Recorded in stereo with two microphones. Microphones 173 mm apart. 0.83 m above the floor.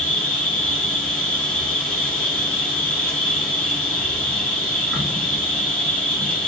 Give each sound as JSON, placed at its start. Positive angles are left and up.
{"t": 0.0, "sound": "an insect", "side_deg": 10, "distance_m": 1.5}